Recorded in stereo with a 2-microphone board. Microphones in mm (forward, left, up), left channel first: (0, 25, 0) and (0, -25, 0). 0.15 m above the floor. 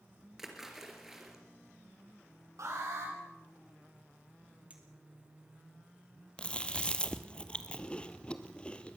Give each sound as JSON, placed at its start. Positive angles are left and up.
{"t": 0.4, "sound": "a splash", "side_deg": -5, "distance_m": 3.5}
{"t": 2.6, "sound": "an alarm", "side_deg": -75, "distance_m": 10.0}
{"t": 4.7, "sound": "a clink", "side_deg": -30, "distance_m": 3.0}
{"t": 6.4, "sound": "chewing", "side_deg": 20, "distance_m": 1.2}